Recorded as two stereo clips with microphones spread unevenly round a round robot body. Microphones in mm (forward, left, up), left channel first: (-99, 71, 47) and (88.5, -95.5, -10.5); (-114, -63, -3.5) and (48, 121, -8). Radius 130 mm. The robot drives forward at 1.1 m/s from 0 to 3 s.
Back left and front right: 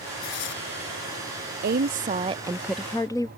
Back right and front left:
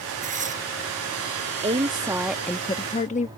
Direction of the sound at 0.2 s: 110° left.